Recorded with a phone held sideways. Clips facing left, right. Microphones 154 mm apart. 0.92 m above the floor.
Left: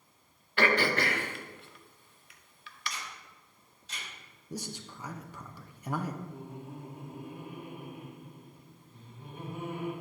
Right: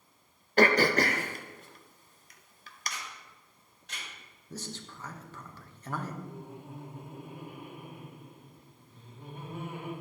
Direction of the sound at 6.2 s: 70° right (ahead or behind).